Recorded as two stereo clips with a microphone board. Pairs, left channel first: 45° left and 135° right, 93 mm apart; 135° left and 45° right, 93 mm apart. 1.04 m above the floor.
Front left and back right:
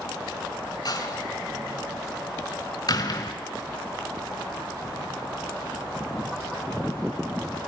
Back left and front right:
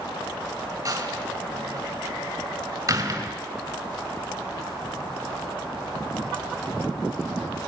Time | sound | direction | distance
0.8 | a door slam | 10° left | 3 m